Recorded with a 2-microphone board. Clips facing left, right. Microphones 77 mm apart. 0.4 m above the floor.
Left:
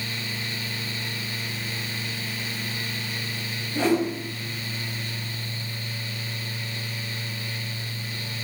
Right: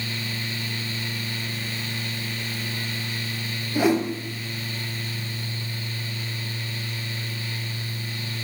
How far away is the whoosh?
About 0.6 m.